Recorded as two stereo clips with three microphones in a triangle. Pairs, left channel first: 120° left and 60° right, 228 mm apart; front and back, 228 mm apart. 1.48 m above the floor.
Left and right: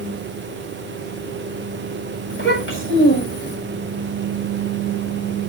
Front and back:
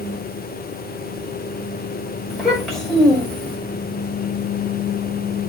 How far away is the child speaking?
About 6.5 m.